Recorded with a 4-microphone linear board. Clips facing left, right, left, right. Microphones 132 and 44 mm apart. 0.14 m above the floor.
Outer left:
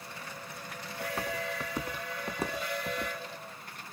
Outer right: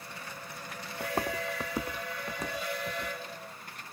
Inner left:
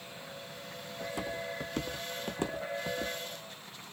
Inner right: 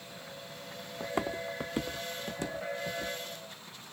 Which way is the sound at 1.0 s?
50° right (ahead or behind).